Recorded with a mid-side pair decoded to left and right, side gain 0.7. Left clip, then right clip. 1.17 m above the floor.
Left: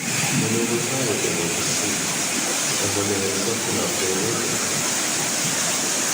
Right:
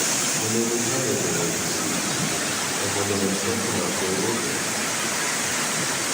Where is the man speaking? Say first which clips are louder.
Left 1 dB; 5° left, 3.5 m.